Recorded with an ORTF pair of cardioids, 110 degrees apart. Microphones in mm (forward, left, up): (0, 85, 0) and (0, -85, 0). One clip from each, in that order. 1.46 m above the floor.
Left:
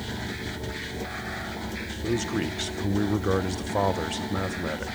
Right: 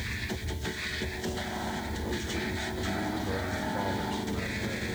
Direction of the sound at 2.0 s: 60° left.